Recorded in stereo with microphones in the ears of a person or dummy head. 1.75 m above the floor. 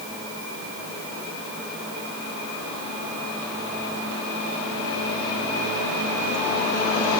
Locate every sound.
Only background noise.